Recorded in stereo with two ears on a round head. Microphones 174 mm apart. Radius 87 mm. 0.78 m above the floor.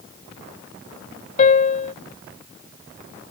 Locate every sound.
1.4 s a piano: 40° left (ahead or behind)